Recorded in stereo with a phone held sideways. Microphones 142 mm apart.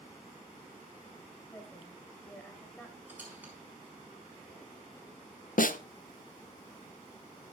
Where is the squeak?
10° right (ahead or behind), 5.5 m.